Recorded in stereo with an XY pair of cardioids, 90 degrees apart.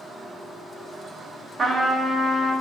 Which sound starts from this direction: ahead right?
A trumpet, at 1.6 s.